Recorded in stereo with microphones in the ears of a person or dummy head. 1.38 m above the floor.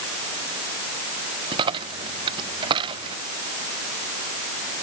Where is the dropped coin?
25° right (ahead or behind).